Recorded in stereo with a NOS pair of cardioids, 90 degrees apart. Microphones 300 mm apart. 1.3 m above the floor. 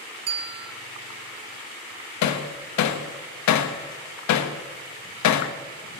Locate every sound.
0.3 s a bell: 55° right, 0.9 m
2.2 s hammering: 70° left, 1.2 m